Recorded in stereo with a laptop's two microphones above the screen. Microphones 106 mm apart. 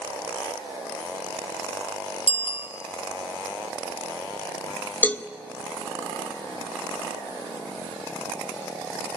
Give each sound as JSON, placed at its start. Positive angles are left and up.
{"t": 2.3, "sound": "a bicycle bell", "side_deg": 80, "distance_m": 2.5}
{"t": 5.0, "sound": "a cowbell", "side_deg": 15, "distance_m": 0.5}